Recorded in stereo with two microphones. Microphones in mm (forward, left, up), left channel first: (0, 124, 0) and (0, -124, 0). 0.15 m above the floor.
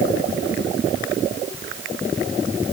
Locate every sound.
Only background noise.